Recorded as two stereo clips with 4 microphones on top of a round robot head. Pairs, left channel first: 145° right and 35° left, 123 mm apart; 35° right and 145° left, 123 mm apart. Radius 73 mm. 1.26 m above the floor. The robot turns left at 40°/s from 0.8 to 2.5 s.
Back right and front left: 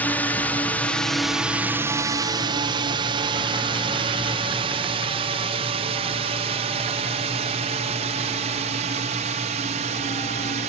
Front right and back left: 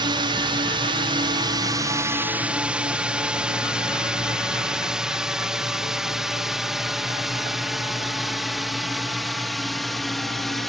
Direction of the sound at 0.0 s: 145° left.